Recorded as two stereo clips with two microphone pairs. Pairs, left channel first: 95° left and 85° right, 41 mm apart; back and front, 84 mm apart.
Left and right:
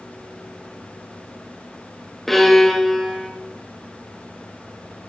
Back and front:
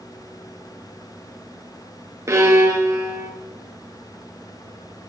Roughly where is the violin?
Ahead.